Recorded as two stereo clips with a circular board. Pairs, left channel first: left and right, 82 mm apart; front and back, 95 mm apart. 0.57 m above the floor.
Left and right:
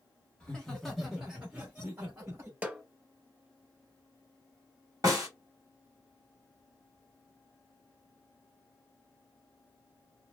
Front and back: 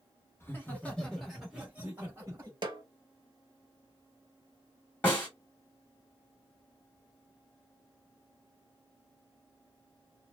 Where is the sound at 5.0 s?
70° right, 1.6 m.